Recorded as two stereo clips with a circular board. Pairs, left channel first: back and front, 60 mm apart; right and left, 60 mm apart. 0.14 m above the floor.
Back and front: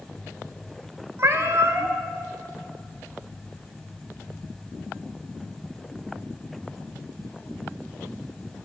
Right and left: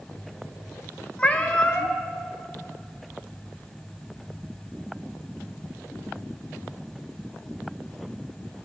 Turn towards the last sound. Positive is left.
turn(degrees=-20)